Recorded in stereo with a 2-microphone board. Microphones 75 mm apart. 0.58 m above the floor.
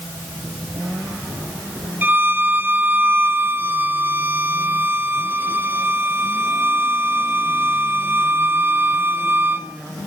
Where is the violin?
25° right (ahead or behind), 1.2 m.